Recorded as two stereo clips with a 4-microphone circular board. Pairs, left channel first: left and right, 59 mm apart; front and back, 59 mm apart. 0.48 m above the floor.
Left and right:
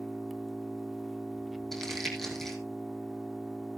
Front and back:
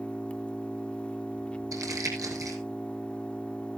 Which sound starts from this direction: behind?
Crumpling, at 1.7 s.